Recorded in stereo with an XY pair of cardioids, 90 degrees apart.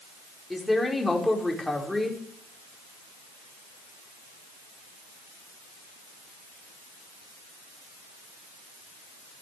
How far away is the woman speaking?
About 5 m.